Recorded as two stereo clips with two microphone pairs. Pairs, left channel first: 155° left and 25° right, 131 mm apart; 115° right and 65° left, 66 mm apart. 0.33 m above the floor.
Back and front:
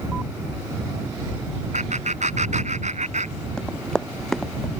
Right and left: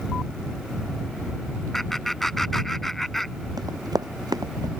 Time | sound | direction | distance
1.7 | laughter | 30° right | ?
3.6 | running footsteps | 70° left | ?